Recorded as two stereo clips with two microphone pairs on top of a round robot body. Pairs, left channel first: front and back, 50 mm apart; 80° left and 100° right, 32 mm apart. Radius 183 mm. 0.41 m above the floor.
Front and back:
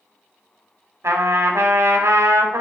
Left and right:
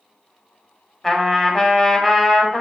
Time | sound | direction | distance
1.0 | a trumpet | 165° left | 0.7 m